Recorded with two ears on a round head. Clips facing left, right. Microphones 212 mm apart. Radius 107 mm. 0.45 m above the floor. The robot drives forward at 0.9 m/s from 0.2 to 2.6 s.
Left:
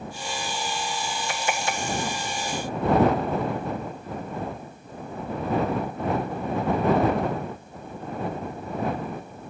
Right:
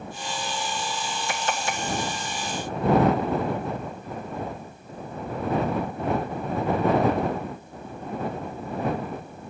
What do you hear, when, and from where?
Only background noise.